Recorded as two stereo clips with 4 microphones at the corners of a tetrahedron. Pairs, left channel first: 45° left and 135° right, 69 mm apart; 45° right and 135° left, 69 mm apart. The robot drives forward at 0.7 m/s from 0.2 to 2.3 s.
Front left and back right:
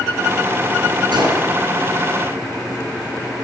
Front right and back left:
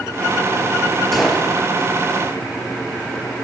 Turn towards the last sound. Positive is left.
turn(degrees=-140)